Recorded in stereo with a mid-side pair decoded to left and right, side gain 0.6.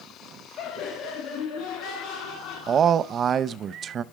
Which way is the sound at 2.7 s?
45° right.